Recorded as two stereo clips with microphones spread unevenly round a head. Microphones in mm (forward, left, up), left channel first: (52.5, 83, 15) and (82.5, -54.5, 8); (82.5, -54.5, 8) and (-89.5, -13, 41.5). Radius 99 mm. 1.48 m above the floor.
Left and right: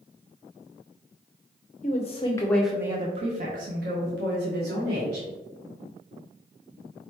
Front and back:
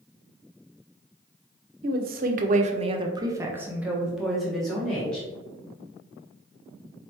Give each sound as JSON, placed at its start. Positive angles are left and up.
{"t": 1.8, "sound": "a woman speaking", "azimuth_deg": 140, "distance_m": 0.6}